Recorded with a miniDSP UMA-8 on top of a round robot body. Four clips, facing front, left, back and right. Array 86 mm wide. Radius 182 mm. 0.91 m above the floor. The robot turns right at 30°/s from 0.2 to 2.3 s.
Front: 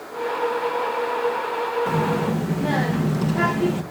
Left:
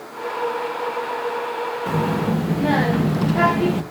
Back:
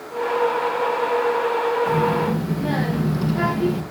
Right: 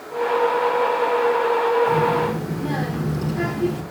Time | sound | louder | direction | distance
1.9 | a child speaking | right 3 dB, back 2 dB | 65° left | 1.0 m